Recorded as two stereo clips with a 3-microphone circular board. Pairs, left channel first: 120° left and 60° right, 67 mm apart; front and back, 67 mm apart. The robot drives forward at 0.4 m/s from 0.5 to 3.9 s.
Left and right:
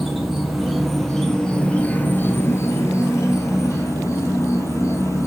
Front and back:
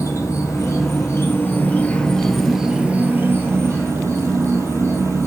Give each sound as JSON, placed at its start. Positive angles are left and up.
{"t": 0.0, "sound": "an insect", "azimuth_deg": 25, "distance_m": 0.9}